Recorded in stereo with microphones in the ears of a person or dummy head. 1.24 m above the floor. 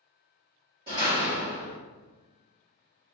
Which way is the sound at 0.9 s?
20° right (ahead or behind).